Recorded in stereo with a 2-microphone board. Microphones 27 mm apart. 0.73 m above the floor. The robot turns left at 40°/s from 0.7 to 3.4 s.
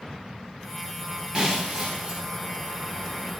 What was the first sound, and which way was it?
Breaking glass, 45° right.